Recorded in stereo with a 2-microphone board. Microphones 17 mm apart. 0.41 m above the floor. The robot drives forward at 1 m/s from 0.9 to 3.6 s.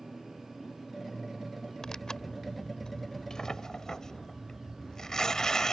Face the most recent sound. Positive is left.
turn(degrees=35)  # may be behind; listen again after turning